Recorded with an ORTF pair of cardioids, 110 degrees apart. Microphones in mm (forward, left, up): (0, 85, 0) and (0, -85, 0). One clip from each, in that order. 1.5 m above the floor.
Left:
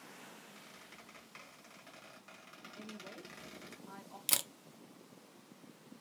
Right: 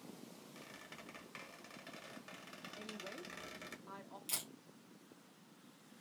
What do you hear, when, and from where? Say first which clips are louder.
0.6 s a squeak: right 1 dB; 20° right, 1.1 m
2.8 s a woman speaking: right 1 dB; 10° right, 0.8 m
4.3 s a camera shutter: left 9 dB; 65° left, 0.5 m